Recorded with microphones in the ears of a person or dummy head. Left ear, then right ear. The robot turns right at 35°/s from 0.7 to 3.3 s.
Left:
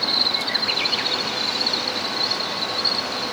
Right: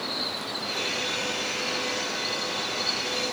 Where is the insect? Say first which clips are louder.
Left 10 dB; 45° left, 3.5 m; by 3.3 s 135° left, 3.5 m.